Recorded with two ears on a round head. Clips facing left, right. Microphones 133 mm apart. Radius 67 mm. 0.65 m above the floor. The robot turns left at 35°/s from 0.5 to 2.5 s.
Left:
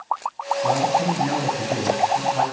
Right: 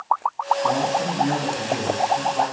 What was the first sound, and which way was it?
A man speaking, 140° left.